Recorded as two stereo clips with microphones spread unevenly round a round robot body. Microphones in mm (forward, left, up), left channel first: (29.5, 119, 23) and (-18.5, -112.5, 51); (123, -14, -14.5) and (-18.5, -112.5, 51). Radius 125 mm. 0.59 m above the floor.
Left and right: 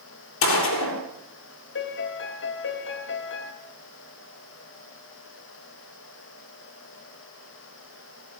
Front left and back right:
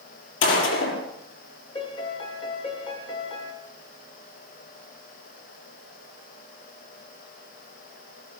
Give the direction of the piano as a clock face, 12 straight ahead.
9 o'clock.